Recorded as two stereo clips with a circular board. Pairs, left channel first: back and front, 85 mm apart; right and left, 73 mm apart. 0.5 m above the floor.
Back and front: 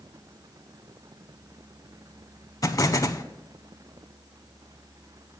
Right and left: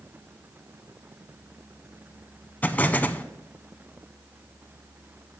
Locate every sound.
2.6 s an explosion: 150° right, 0.5 m